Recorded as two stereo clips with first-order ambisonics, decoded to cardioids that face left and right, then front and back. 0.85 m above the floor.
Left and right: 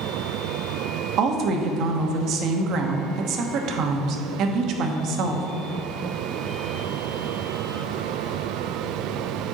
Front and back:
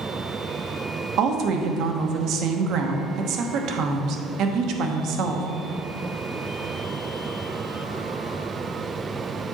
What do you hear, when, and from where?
1.2 s a woman speaking: 135° right, 0.9 m